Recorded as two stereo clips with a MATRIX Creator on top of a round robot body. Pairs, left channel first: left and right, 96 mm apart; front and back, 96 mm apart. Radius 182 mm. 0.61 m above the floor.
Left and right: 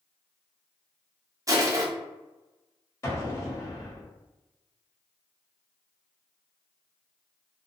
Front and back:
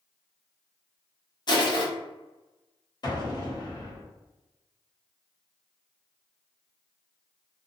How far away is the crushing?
About 0.9 m.